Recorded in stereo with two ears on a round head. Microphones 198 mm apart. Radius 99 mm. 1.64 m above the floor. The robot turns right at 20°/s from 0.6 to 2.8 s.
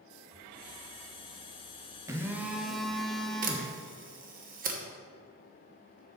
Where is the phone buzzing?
15° right (ahead or behind), 0.7 m; by 3.7 s centre (ahead or behind), 0.7 m.